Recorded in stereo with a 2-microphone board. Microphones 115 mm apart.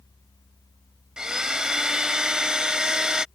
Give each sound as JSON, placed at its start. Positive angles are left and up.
{"t": 1.2, "sound": "a blender", "side_deg": -5}